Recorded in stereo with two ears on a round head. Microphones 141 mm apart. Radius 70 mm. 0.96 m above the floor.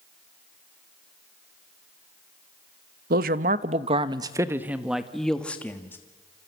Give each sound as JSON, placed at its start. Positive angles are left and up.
{"t": 3.1, "sound": "a man speaking", "side_deg": -60, "distance_m": 1.0}